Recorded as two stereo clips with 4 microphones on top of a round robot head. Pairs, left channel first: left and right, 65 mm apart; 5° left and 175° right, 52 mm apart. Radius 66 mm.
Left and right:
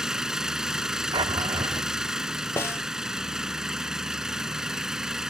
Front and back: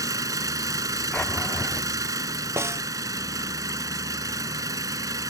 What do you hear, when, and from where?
0.0 s an engine running: 170° right
1.1 s a drawer: 75° right
2.6 s a snare drum: 150° left